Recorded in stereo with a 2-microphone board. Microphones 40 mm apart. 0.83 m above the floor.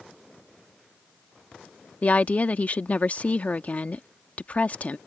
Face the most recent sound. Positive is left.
turn(degrees=40)  # may be behind; listen again after turning